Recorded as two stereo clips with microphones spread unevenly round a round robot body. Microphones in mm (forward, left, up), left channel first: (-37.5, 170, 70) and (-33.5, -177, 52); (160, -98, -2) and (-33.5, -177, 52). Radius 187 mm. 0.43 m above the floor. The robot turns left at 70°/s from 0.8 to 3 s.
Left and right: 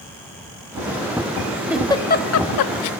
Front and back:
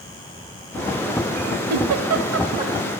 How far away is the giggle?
About 0.9 m.